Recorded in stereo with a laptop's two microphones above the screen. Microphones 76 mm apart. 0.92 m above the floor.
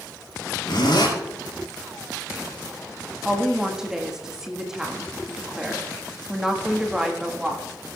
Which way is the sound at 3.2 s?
5° right (ahead or behind).